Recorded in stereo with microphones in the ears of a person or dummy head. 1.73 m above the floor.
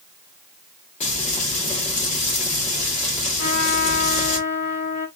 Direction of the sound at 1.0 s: 40° left (ahead or behind).